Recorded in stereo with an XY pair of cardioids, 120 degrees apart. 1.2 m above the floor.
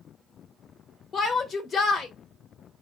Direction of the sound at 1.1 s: 40° left.